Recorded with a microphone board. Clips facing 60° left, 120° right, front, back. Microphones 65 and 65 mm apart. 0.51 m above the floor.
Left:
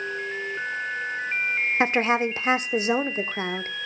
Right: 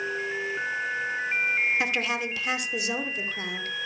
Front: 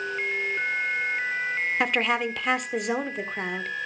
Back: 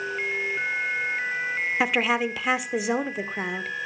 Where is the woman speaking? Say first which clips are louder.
Left 6 dB, back 2 dB; 95° left, 1.1 m.